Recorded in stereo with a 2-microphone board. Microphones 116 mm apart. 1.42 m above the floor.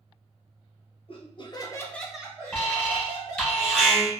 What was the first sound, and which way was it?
Laughter, 50° left (ahead or behind).